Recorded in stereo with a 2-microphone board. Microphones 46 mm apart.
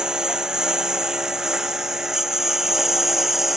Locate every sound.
0.0 s a lawn mower: 15° right (ahead or behind); by 3.6 s 5° right (ahead or behind)